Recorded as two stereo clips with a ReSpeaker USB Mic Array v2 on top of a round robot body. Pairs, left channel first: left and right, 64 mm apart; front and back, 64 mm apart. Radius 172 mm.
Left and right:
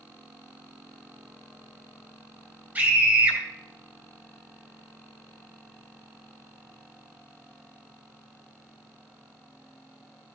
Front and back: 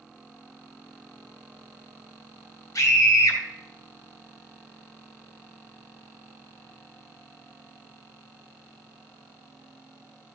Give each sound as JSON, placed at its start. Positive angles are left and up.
{"t": 2.8, "sound": "a scream", "azimuth_deg": -25, "distance_m": 2.5}